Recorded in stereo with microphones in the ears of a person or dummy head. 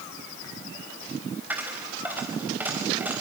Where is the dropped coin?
5° right (ahead or behind), 4 m.